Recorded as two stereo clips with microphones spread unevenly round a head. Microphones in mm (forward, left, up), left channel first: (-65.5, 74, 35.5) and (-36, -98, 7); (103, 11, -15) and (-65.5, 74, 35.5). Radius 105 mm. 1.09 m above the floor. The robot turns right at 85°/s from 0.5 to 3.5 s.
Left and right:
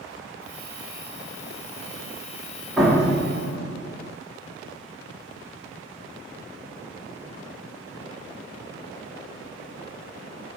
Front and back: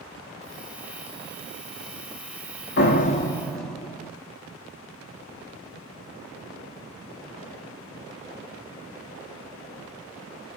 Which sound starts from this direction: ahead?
A door slam, at 2.8 s.